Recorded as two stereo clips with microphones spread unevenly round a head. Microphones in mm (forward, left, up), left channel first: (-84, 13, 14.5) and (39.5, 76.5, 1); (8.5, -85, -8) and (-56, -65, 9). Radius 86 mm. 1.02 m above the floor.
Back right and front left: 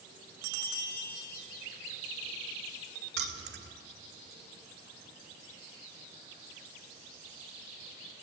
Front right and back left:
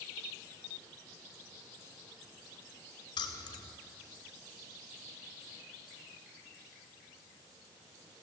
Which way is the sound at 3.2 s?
10° left.